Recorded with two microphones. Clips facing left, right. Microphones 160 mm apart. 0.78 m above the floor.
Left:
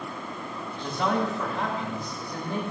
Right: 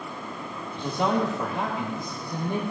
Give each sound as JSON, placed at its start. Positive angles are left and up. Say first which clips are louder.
{"t": 0.8, "sound": "a man speaking", "louder": "right 2 dB", "side_deg": -20, "distance_m": 1.4}